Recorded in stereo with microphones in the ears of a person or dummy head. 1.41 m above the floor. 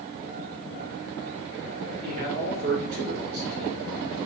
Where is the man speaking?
60° right (ahead or behind), 1.6 m.